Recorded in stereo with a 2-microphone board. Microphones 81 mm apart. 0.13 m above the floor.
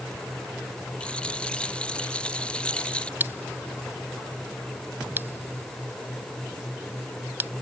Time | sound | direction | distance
1.0 | a rattle | 10° left (ahead or behind) | ?
3.2 | scissors | 25° right (ahead or behind) | ?